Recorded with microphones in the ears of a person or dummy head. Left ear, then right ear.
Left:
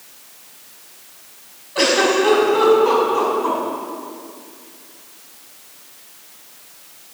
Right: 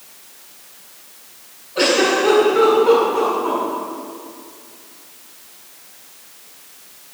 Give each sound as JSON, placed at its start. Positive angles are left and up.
{"t": 1.8, "sound": "a giggle", "side_deg": 65, "distance_m": 5.5}